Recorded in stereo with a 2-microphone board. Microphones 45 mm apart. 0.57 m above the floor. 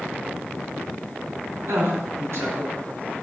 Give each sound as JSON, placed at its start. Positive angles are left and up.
{"t": 1.6, "sound": "a woman speaking", "side_deg": -70, "distance_m": 5.0}